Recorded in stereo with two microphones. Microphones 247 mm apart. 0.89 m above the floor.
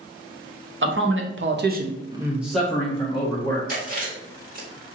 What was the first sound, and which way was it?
A man speaking, 50° right (ahead or behind).